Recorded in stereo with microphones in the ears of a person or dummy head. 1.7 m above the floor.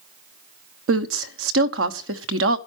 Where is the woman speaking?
80° right, 1.0 m.